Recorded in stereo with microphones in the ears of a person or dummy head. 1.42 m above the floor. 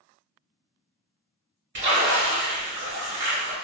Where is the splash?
60° right (ahead or behind), 1.5 m.